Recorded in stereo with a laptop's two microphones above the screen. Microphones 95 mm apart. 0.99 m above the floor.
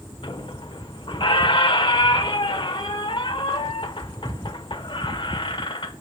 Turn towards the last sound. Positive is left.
turn(degrees=60)  # may be behind; listen again after turning